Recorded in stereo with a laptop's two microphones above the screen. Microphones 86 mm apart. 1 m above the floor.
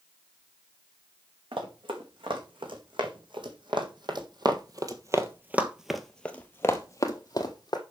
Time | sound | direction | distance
1.5 | running footsteps | 75° right (ahead or behind) | 3.5 m